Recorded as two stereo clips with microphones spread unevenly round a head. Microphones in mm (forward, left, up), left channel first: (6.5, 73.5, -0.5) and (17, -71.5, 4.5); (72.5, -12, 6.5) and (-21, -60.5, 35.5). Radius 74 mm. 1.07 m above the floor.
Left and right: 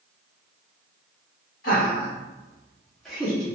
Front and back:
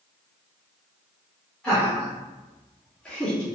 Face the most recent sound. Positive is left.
turn(degrees=-30)